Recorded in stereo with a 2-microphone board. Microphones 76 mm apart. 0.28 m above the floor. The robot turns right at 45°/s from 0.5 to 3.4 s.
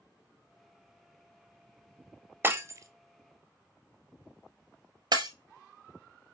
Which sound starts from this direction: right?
Breaking glass, at 2.4 s.